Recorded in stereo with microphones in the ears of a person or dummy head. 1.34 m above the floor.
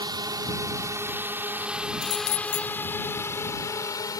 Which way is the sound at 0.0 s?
20° right (ahead or behind).